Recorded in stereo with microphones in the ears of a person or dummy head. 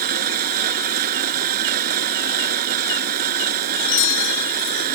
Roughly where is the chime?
Left.